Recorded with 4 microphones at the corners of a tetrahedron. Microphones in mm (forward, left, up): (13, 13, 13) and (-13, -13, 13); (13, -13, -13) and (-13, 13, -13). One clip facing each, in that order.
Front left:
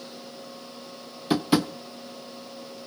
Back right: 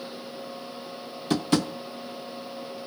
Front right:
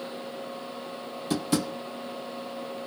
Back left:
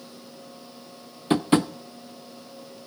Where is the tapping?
115° left, 0.6 m.